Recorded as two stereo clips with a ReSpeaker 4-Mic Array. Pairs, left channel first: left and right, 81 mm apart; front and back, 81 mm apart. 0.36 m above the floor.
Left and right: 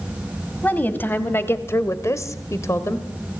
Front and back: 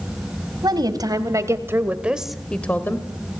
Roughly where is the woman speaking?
Behind left.